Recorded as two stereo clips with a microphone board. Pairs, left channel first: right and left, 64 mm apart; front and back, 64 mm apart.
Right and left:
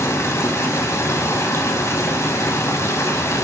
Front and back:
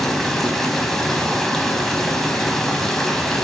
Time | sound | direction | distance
0.0 | running water | 80° right | 0.7 m